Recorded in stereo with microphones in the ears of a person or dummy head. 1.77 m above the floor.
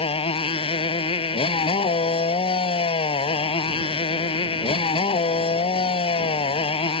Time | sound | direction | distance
0.0 | a motorcycle | 30° left (ahead or behind) | ?